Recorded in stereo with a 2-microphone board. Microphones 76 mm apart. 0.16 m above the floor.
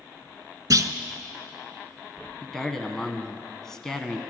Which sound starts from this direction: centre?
A man speaking, at 2.4 s.